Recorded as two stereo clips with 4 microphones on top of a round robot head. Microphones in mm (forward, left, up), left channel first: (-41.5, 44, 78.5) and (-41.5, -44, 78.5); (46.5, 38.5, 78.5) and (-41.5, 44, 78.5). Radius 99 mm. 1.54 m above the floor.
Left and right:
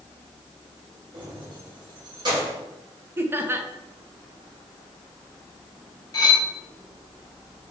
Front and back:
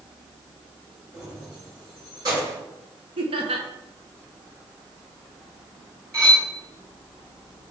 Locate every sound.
1.1 s keys jangling: 115° right, 3.5 m; by 2.6 s 130° right, 4 m
3.2 s laughter: 155° right, 1.3 m
6.1 s cutlery clinking: 130° left, 2 m